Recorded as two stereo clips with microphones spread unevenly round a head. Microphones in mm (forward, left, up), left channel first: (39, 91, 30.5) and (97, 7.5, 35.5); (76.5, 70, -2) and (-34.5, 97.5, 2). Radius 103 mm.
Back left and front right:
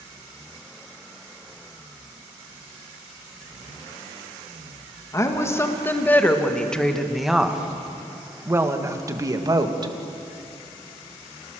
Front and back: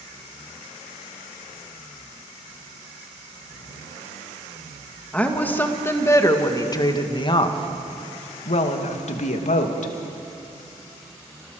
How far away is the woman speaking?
About 2 m.